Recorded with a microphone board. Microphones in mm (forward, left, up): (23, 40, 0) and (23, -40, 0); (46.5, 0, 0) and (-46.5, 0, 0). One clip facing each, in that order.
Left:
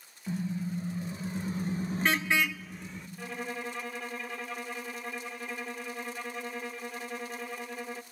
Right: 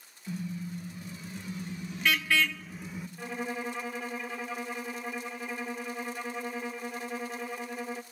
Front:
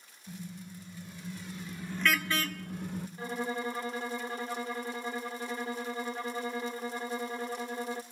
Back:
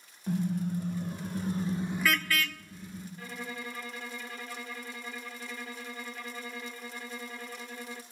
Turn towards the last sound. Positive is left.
turn(degrees=-15)